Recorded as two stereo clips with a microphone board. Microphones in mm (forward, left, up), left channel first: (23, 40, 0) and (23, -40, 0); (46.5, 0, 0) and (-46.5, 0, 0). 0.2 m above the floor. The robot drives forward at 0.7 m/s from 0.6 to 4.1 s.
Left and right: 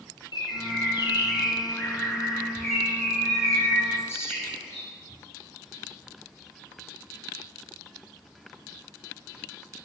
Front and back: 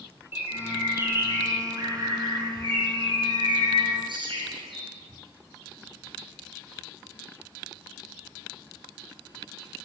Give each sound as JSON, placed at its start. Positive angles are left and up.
{"t": 0.3, "sound": "a bird", "azimuth_deg": 110, "distance_m": 2.0}